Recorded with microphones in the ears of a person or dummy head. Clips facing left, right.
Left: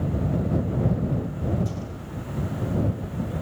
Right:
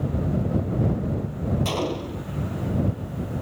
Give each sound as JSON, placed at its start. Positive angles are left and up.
{"t": 1.6, "sound": "a gunshot", "side_deg": -85}